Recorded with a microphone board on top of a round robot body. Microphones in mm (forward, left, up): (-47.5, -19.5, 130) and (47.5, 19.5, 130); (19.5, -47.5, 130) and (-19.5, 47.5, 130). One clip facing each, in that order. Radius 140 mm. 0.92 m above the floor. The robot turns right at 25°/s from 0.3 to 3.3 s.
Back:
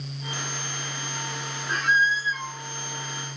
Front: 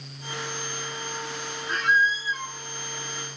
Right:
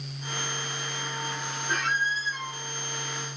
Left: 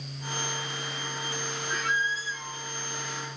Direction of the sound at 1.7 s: 75° right.